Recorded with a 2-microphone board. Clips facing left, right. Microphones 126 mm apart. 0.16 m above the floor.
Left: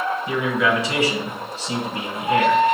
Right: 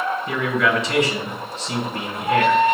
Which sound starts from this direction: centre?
A man speaking, at 0.3 s.